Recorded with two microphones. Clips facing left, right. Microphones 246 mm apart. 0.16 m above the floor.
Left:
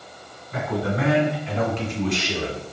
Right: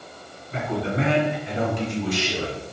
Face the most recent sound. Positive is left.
turn(degrees=0)  # may be behind; listen again after turning